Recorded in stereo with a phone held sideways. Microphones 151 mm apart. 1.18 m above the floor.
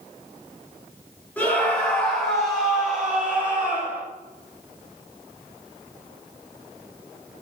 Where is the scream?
10° left (ahead or behind), 4 m; by 4.0 s 15° right (ahead or behind), 4 m.